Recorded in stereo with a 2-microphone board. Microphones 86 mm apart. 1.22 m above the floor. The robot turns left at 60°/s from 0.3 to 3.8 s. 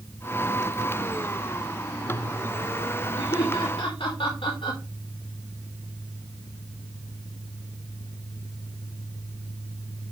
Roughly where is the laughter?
Left.